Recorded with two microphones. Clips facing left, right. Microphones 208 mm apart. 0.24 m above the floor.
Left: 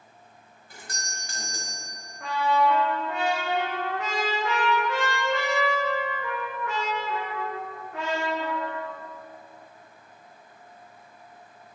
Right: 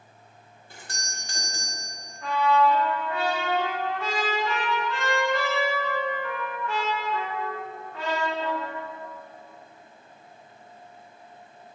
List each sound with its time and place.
0.7 s a doorbell: 30° right (ahead or behind), 1.8 m
2.2 s a trumpet: 75° left (ahead or behind), 3 m